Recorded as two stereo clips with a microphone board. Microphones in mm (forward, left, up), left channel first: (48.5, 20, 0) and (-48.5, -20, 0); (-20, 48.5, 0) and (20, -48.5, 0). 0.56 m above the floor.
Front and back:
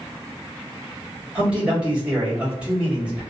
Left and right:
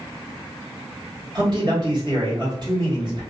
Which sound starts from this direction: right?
A man speaking, at 1.4 s.